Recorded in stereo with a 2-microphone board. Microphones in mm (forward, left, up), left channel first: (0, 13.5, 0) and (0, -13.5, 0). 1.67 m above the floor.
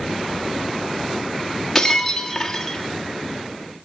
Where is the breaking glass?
15° left (ahead or behind), 1.4 m.